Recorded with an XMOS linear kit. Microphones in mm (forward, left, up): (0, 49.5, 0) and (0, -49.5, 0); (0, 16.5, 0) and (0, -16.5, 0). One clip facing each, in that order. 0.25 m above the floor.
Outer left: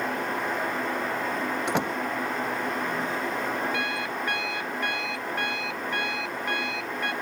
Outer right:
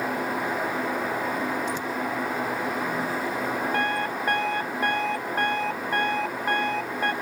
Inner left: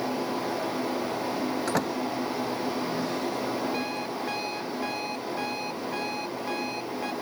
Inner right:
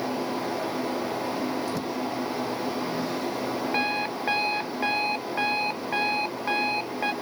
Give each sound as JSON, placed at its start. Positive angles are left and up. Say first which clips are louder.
{"t": 1.7, "sound": "a door slam", "louder": "outer left 2 dB, inner left 2 dB", "side_deg": 70}
{"t": 3.7, "sound": "an alarm clock", "louder": "outer right 4 dB, inner right 4 dB", "side_deg": -40}